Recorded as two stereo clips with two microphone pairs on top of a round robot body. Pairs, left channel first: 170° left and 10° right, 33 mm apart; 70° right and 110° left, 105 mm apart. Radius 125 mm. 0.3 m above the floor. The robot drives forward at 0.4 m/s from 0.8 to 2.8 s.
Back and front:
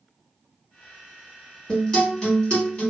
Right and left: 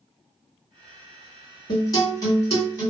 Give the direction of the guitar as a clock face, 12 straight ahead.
4 o'clock.